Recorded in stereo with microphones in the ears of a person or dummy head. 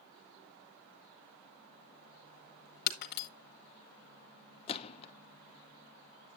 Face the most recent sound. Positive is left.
turn(degrees=30)  # may be behind; listen again after turning